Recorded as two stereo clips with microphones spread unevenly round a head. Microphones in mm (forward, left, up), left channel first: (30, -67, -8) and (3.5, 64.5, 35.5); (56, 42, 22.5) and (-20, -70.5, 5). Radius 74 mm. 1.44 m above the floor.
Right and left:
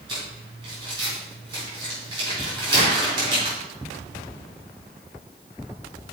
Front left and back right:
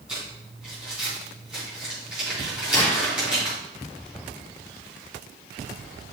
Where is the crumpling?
150° left, 4 m.